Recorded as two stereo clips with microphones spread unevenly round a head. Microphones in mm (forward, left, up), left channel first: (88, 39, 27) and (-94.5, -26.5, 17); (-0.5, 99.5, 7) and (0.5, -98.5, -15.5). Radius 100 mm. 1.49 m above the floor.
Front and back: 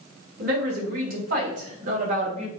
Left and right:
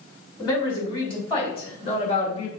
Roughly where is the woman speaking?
Behind.